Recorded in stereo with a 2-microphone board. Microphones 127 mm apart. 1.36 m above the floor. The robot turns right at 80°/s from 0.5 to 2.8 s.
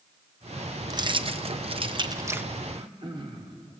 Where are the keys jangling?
140° right, 0.7 m; by 2.5 s 10° right, 0.7 m.